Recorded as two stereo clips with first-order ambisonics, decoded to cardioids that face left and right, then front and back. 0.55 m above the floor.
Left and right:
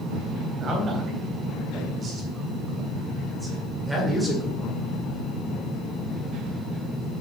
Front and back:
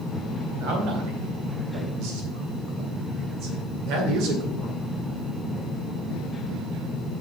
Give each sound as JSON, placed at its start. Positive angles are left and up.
{"t": 0.6, "sound": "a man speaking", "azimuth_deg": -150, "distance_m": 4.0}